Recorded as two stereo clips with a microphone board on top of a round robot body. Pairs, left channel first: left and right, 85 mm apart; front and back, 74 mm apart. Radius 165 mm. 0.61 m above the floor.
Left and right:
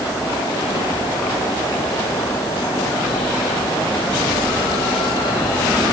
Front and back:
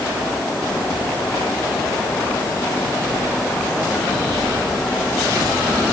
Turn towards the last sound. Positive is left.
No sound to turn to.